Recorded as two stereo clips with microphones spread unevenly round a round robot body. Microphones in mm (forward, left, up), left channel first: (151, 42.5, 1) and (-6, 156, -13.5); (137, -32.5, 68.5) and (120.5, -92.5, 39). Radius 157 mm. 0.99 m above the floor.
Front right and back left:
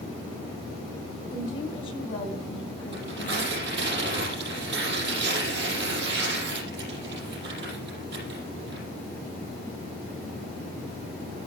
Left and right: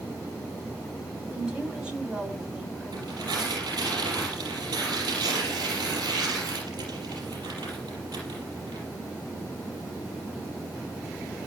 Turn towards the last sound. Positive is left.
turn(degrees=-140)